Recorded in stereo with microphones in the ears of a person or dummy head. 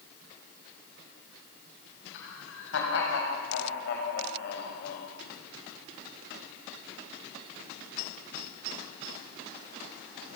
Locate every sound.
2.1 s laughter: 70° left (ahead or behind), 7.5 m; by 5.1 s 50° left (ahead or behind), 5.5 m